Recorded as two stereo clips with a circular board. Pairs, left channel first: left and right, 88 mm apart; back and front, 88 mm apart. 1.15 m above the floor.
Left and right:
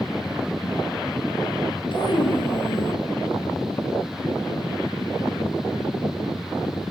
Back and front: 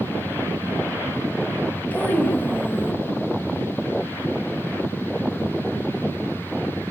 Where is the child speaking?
110° left, 4 m.